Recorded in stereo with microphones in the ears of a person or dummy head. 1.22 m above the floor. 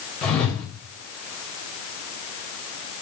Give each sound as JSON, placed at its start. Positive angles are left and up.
{"t": 0.2, "sound": "a whoosh", "side_deg": 0, "distance_m": 0.8}